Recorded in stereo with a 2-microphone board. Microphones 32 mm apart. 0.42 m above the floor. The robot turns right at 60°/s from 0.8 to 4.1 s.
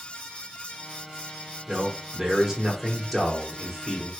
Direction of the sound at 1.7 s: 20° right (ahead or behind).